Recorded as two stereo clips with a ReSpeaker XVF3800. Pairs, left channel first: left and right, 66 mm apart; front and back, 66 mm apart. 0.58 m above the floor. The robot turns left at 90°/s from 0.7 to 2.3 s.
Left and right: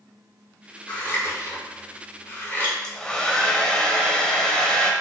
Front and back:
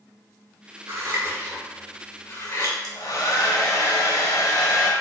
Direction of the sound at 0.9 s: 165° left.